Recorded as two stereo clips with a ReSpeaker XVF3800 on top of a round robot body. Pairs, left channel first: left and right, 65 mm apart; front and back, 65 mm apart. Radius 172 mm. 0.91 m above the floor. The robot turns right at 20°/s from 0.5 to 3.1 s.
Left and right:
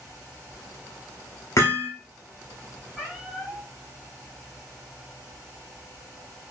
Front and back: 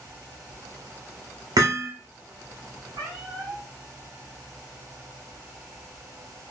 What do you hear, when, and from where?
1.6 s hammering: 145° left, 0.5 m; by 1.9 s 150° left, 0.5 m
2.9 s a cat meowing: 175° right, 0.6 m